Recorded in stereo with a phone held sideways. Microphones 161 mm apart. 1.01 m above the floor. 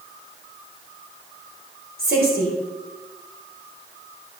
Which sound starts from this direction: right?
A woman speaking, at 2.0 s.